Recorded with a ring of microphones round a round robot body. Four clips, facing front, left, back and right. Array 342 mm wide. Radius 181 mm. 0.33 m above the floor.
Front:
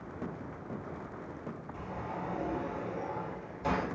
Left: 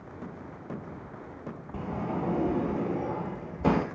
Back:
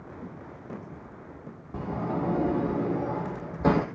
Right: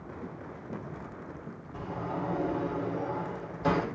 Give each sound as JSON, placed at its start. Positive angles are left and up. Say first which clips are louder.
{"t": 1.7, "sound": "a sliding door", "louder": "left 2 dB, back 11 dB", "azimuth_deg": 150, "distance_m": 2.5}